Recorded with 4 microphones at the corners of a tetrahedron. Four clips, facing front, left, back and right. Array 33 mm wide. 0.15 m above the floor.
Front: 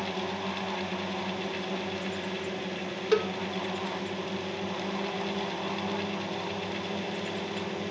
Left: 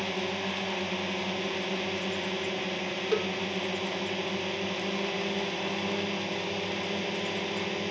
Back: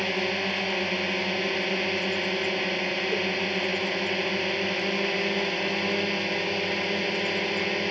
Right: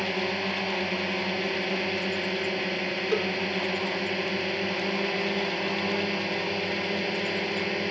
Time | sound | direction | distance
0.0 | a drone | 160° right | ?
3.1 | a cowbell | straight ahead | ?